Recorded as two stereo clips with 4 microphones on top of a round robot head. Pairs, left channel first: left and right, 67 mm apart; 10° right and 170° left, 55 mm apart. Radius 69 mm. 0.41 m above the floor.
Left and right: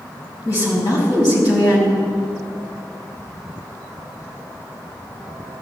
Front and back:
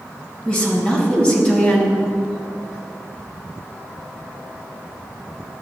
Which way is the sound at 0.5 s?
55° left.